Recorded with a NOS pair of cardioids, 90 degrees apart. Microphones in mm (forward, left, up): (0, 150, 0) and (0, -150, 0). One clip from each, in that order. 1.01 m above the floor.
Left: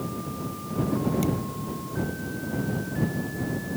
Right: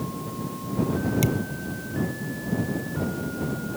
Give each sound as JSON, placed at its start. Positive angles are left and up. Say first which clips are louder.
{"t": 1.2, "sound": "a thud", "louder": "right 2 dB", "azimuth_deg": -50}